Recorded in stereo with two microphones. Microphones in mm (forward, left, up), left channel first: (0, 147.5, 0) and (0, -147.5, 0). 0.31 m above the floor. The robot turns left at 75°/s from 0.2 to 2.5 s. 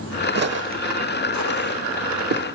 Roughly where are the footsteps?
Right.